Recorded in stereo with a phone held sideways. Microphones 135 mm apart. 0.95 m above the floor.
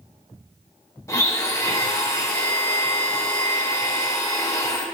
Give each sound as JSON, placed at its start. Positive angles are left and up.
{"t": 1.1, "sound": "a blender", "side_deg": 20, "distance_m": 1.3}